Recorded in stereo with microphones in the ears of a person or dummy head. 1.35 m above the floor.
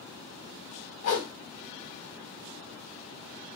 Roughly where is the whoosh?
Left.